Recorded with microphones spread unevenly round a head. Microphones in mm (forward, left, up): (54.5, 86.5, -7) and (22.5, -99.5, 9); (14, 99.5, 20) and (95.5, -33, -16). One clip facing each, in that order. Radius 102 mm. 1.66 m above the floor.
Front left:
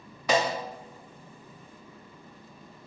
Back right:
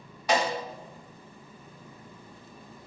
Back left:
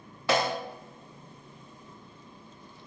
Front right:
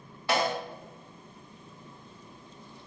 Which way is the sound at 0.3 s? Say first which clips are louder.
Front left 1 dB, back left 1 dB; 110° left.